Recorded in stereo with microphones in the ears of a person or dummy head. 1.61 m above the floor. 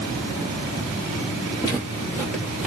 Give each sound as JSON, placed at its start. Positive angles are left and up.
{"t": 1.6, "sound": "footsteps", "side_deg": 15, "distance_m": 1.8}